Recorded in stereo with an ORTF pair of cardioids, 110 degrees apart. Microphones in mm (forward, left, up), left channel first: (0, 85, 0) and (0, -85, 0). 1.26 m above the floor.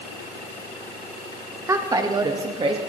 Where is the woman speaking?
20° right, 1.4 m; by 2.8 s 30° right, 1.9 m.